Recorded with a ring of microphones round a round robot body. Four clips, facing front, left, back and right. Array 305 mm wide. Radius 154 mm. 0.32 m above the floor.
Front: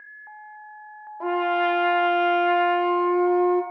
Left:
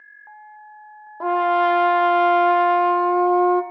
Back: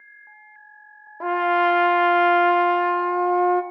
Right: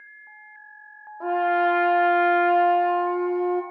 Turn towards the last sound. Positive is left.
turn(degrees=115)